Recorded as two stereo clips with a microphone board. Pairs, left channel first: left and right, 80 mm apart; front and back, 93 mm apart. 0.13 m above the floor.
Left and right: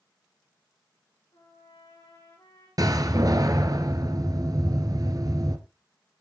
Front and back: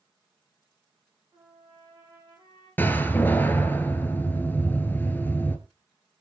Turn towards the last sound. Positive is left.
turn(degrees=-65)